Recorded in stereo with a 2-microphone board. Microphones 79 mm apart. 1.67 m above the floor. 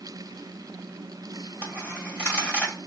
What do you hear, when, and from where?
1.6 s a dropped coin: 15° left (ahead or behind), 1.7 m